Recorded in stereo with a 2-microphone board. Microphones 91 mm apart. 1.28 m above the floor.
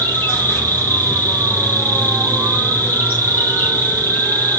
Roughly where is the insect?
Left.